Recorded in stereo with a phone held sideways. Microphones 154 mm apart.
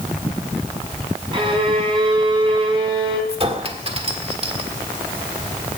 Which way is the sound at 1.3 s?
35° right (ahead or behind).